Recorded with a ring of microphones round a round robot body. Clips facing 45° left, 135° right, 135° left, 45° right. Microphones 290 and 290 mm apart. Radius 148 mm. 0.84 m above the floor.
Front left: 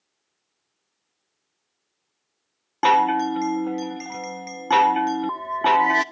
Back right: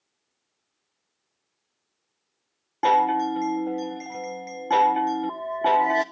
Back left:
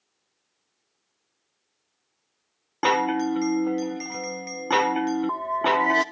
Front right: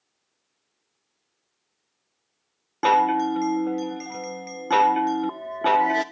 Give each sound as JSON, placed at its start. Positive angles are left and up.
{"t": 2.8, "sound": "a chime", "azimuth_deg": 60, "distance_m": 0.6}